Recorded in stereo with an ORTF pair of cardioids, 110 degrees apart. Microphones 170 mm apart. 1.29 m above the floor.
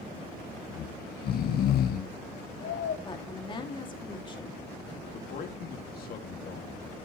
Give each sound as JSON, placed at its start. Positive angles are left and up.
{"t": 0.7, "sound": "snoring", "azimuth_deg": 65, "distance_m": 1.2}
{"t": 3.0, "sound": "a woman speaking", "azimuth_deg": 30, "distance_m": 2.0}
{"t": 5.1, "sound": "a man speaking", "azimuth_deg": 60, "distance_m": 2.0}